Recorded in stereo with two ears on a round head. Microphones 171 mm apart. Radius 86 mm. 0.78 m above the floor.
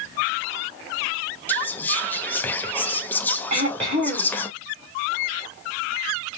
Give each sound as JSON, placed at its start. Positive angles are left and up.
{"t": 1.5, "sound": "whispering", "side_deg": 10, "distance_m": 0.6}
{"t": 3.5, "sound": "throat clearing", "side_deg": -40, "distance_m": 3.0}